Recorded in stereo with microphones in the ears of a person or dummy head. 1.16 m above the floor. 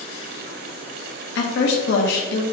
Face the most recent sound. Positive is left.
turn(degrees=70)  # may be behind; listen again after turning